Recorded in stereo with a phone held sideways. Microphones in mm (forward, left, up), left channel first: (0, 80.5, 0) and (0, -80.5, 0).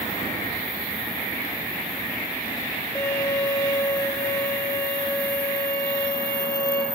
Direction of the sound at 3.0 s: 25° left (ahead or behind).